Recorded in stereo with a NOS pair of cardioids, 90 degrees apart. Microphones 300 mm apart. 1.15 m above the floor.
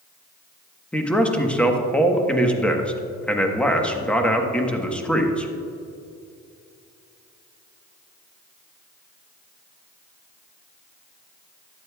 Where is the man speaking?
5° left, 1.2 m.